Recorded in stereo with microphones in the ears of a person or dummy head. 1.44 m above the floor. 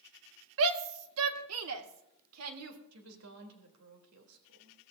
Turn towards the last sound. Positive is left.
turn(degrees=-85)